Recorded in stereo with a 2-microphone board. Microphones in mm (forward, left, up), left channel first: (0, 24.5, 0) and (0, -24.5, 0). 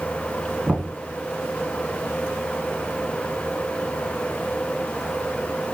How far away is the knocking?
About 1.2 m.